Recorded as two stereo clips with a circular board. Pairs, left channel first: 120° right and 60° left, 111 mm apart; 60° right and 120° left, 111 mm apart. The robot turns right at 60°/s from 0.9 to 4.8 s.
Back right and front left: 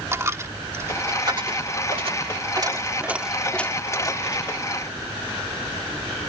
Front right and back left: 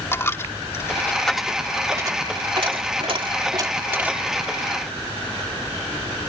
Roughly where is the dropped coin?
Ahead.